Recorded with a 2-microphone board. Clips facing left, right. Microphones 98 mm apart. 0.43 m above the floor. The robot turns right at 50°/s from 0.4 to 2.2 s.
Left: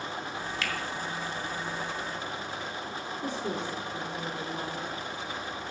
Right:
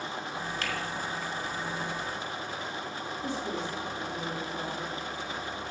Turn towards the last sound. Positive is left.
turn(degrees=65)  # may be behind; listen again after turning